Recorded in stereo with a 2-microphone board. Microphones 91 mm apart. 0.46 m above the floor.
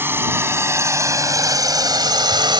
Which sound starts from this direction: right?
A drone, at 0.0 s.